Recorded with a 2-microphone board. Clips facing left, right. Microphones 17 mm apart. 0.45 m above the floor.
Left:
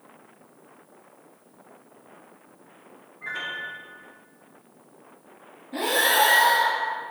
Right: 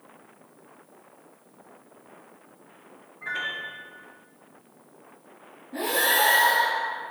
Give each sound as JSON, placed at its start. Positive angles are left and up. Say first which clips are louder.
{"t": 3.2, "sound": "a piano", "louder": "right 1 dB", "side_deg": -5, "distance_m": 0.6}
{"t": 5.7, "sound": "breathing", "louder": "left 2 dB", "side_deg": 65, "distance_m": 1.2}